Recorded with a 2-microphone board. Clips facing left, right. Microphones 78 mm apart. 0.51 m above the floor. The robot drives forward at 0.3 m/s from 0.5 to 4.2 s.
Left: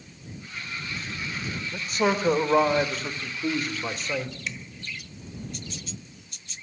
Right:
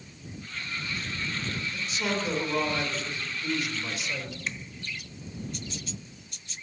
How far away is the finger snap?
About 1.5 m.